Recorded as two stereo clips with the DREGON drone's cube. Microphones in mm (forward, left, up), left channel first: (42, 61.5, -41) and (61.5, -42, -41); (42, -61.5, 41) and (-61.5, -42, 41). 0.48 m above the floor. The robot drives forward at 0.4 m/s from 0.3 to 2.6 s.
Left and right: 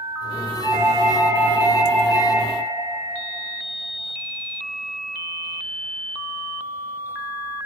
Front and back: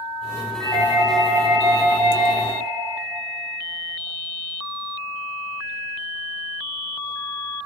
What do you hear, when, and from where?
0.6 s a doorbell: 135° left, 4.5 m; by 2.5 s 140° left, 5 m